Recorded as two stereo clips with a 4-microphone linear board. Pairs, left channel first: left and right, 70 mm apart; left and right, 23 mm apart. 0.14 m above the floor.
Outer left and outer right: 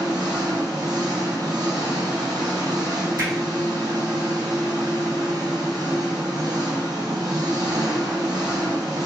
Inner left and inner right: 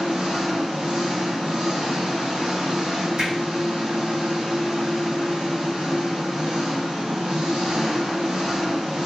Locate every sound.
0.0 s an engine running: 70° right (ahead or behind), 1.5 m
3.2 s hammering: 50° right (ahead or behind), 1.9 m